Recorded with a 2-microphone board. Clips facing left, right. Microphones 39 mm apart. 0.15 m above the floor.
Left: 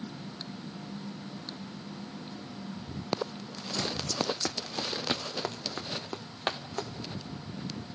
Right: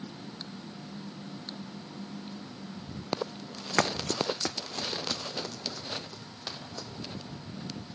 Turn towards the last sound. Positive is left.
turn(degrees=45)  # may be behind; listen again after turning